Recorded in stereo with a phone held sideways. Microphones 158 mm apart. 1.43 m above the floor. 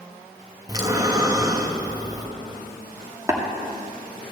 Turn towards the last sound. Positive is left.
turn(degrees=-20)  # may be behind; listen again after turning